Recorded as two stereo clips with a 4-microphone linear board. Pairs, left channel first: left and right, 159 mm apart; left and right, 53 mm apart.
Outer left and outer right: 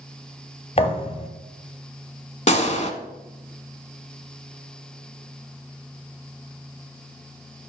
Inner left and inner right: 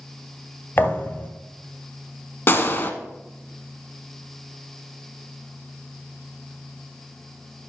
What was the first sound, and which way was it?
A thud, 40° left (ahead or behind).